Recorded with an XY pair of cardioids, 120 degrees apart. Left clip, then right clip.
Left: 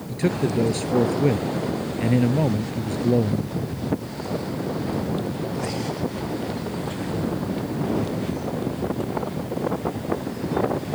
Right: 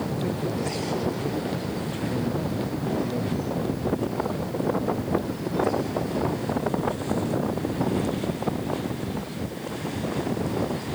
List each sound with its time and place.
0.1 s a man speaking: 65° left